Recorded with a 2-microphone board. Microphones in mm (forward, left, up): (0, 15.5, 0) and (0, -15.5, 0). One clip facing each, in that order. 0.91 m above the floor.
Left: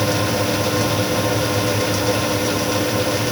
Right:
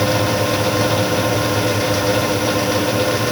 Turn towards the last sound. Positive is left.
No sound to turn to.